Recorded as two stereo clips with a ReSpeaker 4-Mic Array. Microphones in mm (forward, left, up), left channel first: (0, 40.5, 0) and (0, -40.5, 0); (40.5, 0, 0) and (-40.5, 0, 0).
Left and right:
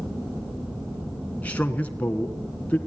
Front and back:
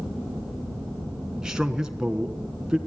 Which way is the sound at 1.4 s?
115° left.